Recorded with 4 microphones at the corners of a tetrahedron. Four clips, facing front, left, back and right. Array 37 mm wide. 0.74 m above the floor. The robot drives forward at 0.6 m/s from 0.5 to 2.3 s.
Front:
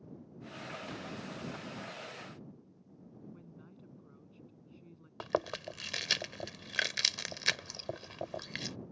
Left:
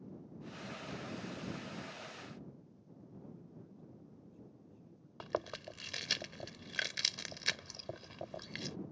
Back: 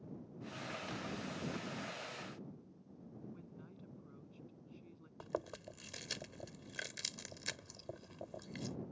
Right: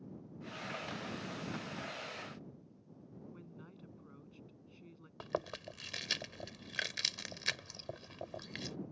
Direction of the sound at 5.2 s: 5° right.